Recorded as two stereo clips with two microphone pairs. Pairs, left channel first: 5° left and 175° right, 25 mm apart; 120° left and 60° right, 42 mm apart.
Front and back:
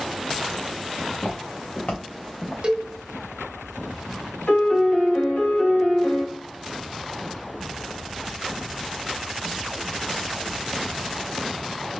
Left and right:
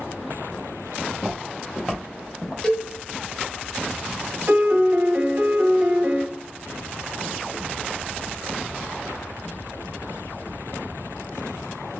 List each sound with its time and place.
1.1 s footsteps: 30° left, 1.9 m
2.6 s a cowbell: 170° right, 1.1 m
4.5 s a piano: 25° right, 1.3 m